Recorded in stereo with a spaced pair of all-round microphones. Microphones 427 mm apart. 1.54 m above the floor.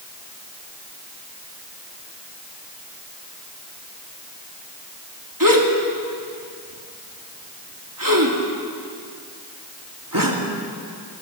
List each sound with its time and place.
5.4 s a gasp: 50° right (ahead or behind), 3 m